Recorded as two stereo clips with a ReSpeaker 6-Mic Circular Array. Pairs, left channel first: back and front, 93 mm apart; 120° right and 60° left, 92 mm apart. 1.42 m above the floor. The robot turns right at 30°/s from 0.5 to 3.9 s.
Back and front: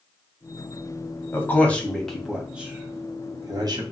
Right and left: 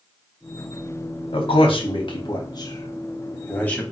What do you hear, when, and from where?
1.3 s a man speaking: 115° right, 0.9 m; by 3.8 s 40° right, 0.9 m